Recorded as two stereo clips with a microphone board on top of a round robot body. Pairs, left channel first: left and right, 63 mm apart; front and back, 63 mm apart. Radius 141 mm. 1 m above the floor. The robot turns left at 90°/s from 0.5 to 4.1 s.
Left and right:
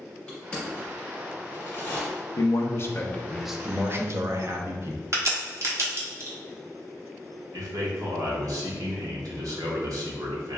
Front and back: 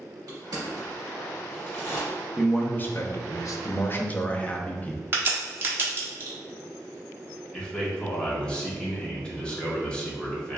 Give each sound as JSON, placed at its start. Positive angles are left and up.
{"t": 0.3, "sound": "crushing", "azimuth_deg": 165, "distance_m": 1.8}
{"t": 2.4, "sound": "a man speaking", "azimuth_deg": 95, "distance_m": 0.6}
{"t": 5.1, "sound": "a crack", "azimuth_deg": -130, "distance_m": 1.1}
{"t": 7.5, "sound": "a man speaking", "azimuth_deg": -75, "distance_m": 1.2}